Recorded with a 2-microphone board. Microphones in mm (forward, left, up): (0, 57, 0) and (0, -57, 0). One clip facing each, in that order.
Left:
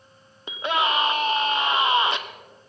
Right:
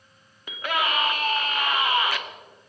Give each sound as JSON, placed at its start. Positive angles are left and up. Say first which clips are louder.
{"t": 0.5, "sound": "a scream", "louder": "left 3 dB", "side_deg": 25, "distance_m": 1.0}